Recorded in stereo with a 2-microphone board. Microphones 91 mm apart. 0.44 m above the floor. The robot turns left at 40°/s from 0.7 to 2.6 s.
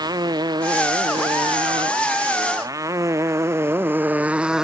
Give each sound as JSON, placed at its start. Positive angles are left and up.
{"t": 0.0, "sound": "a motorcycle", "side_deg": -50}